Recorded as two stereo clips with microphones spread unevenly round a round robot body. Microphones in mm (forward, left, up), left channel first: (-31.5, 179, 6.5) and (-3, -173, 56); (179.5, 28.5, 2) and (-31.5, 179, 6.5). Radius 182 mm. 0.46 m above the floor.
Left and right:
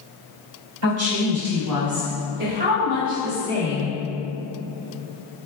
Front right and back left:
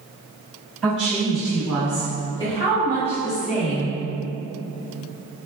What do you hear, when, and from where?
0.8 s a woman speaking: 130° right, 1.3 m; by 4.0 s 15° left, 1.1 m